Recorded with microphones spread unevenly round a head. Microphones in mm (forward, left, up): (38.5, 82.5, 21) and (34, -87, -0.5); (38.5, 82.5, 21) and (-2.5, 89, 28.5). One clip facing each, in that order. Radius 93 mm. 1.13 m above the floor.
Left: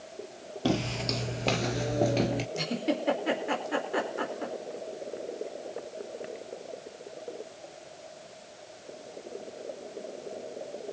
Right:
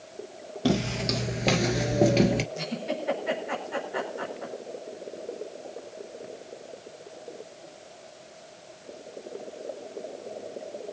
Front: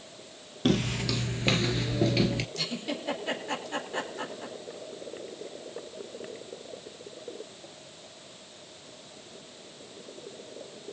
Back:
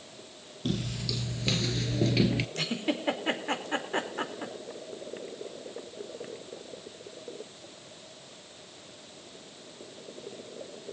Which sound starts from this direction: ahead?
Footsteps, at 0.7 s.